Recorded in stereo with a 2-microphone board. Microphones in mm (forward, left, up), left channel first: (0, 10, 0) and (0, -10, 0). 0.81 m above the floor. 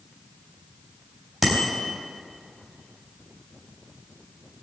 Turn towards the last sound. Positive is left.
turn(degrees=-5)  # may be behind; listen again after turning